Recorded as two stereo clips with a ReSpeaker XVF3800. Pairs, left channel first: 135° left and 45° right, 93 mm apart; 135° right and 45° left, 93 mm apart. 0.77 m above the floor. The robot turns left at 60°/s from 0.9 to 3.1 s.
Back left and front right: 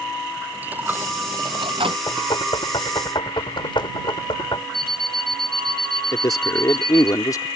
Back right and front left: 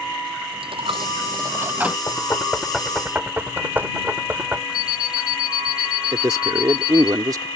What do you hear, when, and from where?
0.5 s a dropped coin: 25° left; by 2.0 s 35° right
2.1 s knocking: 175° left; by 4.6 s 115° left
4.7 s an alarm clock: 50° left
6.1 s a man speaking: 90° left